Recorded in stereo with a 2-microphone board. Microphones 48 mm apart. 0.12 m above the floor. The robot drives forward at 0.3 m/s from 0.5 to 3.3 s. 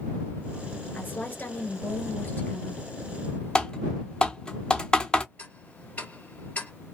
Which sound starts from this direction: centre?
Typing on a keyboard, at 3.5 s.